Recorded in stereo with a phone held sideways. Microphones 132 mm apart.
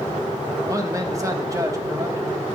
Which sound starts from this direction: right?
A man speaking, at 0.7 s.